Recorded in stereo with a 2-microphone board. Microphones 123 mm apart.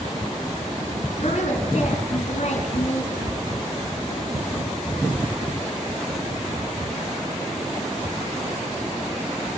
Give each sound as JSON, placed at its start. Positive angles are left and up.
{"t": 1.2, "sound": "a woman speaking", "side_deg": 65, "distance_m": 3.5}